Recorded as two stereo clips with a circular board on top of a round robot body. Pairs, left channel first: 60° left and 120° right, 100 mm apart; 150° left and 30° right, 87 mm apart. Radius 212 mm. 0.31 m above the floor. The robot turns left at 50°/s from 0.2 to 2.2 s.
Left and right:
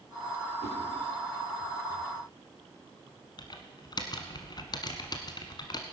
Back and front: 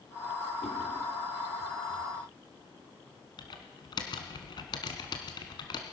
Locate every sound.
0.6 s a whoosh: 130° right, 5 m; by 0.8 s 135° right, 5 m
3.4 s typing on a keyboard: 110° left, 1.0 m